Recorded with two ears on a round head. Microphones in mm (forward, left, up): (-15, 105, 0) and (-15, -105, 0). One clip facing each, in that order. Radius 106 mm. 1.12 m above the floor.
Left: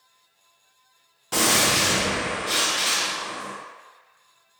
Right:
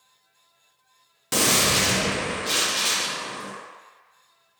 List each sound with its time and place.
1.3 s a gunshot: 25° right (ahead or behind), 0.5 m